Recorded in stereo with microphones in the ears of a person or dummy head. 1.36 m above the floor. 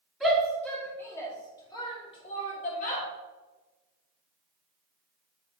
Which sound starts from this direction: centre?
A shout, at 0.2 s.